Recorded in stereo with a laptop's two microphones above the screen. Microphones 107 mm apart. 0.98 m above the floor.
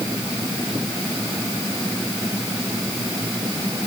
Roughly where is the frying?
No frying in this recording.